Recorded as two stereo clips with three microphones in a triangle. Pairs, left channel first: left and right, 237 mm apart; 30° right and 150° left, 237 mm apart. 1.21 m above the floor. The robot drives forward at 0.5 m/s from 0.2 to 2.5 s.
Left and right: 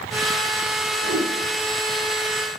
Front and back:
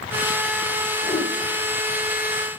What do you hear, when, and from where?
1.0 s a whoosh: 90° right, 1.8 m; by 1.3 s 95° right, 1.8 m